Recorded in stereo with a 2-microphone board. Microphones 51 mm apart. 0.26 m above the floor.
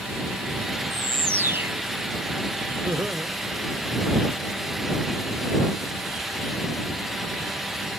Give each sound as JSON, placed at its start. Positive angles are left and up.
{"t": 0.9, "sound": "a bird", "side_deg": -50}
{"t": 2.9, "sound": "laughter", "side_deg": -40}